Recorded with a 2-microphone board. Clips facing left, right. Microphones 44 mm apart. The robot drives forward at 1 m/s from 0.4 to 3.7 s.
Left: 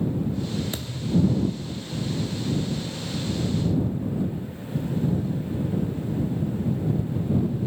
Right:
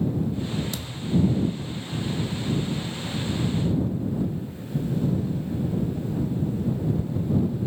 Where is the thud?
30° left (ahead or behind), 0.9 m; by 1.9 s 35° left (ahead or behind), 0.8 m.